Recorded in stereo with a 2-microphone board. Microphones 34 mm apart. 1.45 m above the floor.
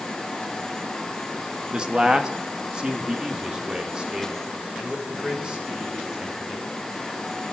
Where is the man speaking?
25° right (ahead or behind), 1.9 m; by 6.7 s 20° right (ahead or behind), 7 m.